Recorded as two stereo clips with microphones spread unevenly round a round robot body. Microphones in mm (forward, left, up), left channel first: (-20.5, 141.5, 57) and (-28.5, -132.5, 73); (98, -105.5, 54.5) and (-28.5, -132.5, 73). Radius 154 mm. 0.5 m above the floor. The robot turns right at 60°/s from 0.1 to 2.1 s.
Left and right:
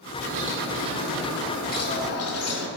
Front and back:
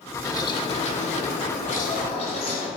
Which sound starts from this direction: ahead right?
A bird, at 0.2 s.